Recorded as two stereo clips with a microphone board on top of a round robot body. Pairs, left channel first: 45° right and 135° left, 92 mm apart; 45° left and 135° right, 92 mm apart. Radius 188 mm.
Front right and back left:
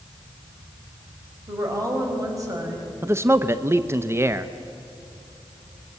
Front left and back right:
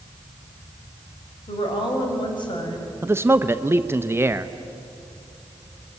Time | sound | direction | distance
1.5 | a woman speaking | 80° left | 5 m
3.0 | a man speaking | straight behind | 1.0 m